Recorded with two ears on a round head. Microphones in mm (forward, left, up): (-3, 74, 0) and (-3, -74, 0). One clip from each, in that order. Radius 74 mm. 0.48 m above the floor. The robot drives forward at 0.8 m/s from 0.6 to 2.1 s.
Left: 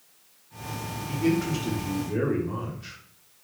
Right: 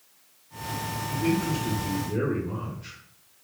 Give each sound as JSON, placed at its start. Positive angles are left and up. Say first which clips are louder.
{"t": 1.1, "sound": "a man speaking", "louder": "left 2 dB", "side_deg": 15, "distance_m": 1.0}